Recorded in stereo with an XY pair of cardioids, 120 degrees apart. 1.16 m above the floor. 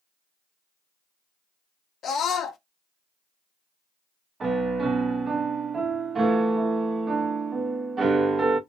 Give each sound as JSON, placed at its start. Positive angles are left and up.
{"t": 2.0, "sound": "a scream", "azimuth_deg": 50, "distance_m": 0.5}
{"t": 4.4, "sound": "a piano", "azimuth_deg": -35, "distance_m": 0.8}